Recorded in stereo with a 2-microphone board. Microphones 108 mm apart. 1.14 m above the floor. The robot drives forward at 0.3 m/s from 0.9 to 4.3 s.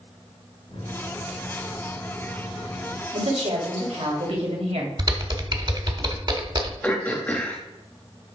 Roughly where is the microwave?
Left.